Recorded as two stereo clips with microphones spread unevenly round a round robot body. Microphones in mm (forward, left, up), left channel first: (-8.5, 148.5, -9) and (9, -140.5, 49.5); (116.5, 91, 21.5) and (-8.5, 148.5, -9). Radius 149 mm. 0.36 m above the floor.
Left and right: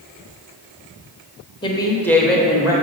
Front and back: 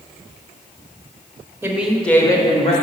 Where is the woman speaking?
125° left, 0.9 m; by 2.7 s 5° left, 0.9 m.